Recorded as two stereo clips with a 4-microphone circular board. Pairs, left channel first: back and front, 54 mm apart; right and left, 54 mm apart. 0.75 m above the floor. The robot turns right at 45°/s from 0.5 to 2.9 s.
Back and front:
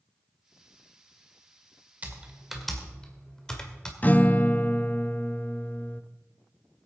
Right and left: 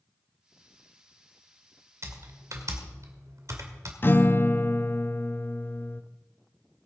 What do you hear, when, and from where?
2.0 s typing on a keyboard: 65° left, 1.9 m; by 3.9 s 105° left, 1.9 m
4.0 s a guitar: 125° right, 0.5 m